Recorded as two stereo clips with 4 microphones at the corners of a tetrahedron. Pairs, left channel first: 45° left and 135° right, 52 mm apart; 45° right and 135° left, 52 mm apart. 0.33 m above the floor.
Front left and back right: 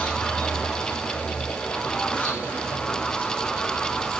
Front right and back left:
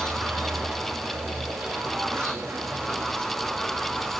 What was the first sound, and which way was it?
An insect, 100° left.